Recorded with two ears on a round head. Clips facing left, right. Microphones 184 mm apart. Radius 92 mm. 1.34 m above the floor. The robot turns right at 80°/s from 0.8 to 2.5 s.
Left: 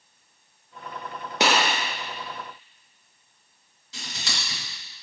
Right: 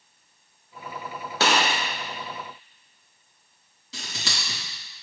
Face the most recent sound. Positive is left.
turn(degrees=-70)  # may be behind; listen again after turning